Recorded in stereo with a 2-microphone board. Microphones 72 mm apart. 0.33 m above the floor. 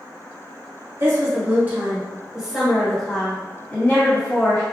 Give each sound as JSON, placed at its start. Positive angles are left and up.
{"t": 1.0, "sound": "a woman speaking", "side_deg": -40, "distance_m": 1.3}